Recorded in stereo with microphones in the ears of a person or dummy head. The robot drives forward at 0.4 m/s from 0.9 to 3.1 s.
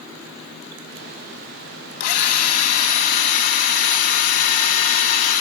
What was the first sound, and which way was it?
A drill, 45° left (ahead or behind).